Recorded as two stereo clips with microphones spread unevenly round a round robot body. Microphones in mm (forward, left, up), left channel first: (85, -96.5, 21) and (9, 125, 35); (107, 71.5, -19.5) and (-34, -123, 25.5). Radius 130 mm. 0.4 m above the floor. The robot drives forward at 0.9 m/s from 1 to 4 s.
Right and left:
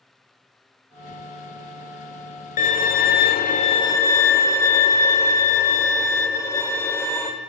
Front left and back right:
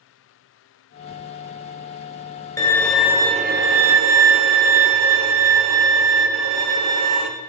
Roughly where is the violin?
Ahead.